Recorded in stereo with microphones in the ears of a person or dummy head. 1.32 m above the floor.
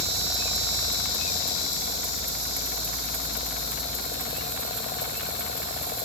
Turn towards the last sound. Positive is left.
No sound to turn to.